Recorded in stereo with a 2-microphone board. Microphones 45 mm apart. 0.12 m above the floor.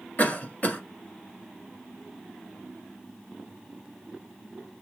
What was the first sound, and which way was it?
A cough, 40° left (ahead or behind).